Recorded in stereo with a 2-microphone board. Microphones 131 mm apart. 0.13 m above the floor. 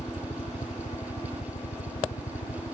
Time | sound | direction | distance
0.0 | a helicopter | 50° left (ahead or behind) | ?